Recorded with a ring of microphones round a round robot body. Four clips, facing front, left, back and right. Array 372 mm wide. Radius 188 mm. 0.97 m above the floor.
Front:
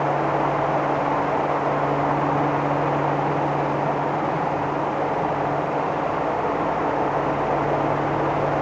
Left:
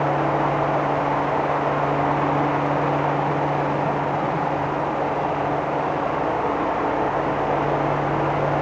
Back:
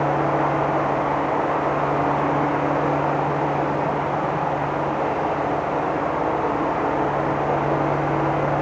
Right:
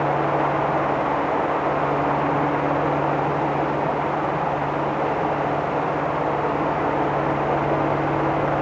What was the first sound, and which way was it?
Only background noise.